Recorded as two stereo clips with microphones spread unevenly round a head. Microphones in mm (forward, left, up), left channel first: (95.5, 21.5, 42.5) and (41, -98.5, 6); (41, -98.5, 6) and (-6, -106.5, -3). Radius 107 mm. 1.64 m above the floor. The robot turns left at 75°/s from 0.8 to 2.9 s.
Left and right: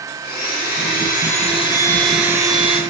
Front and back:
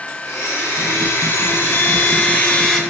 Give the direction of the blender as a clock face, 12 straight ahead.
9 o'clock.